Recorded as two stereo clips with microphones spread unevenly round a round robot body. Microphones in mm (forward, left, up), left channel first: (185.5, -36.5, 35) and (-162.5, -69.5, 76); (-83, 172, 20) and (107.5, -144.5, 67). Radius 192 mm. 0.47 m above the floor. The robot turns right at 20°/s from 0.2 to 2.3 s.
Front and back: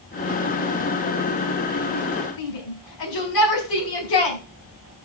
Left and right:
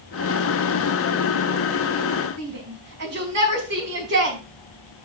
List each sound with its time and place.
2.4 s a shout: 10° right, 3.5 m